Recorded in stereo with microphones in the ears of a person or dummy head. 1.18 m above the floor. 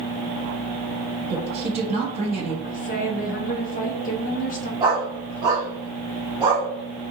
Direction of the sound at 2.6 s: 40° left (ahead or behind).